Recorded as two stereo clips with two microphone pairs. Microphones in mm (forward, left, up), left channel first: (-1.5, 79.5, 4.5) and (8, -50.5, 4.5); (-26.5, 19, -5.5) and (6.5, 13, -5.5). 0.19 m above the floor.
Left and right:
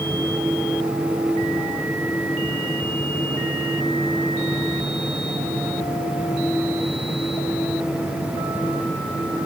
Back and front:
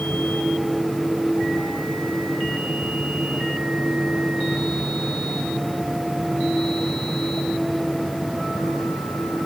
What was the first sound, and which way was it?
Only background noise.